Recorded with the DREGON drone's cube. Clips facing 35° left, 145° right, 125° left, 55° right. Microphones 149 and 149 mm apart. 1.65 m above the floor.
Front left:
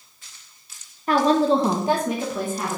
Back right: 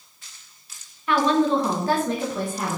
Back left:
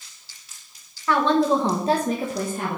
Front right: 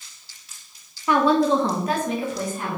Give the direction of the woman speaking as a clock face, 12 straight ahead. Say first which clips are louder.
Front left 2 dB, front right 1 dB; 12 o'clock.